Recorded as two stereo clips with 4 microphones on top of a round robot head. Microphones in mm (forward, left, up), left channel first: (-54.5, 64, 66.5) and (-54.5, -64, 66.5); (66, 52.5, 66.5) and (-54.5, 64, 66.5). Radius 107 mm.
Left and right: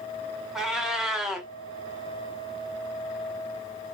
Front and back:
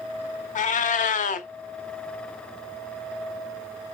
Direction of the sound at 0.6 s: 5° right.